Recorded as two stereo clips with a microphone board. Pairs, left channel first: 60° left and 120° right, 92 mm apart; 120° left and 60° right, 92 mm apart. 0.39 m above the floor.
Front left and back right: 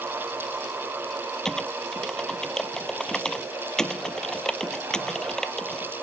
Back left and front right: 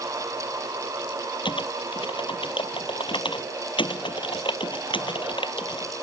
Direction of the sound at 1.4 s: 145° left.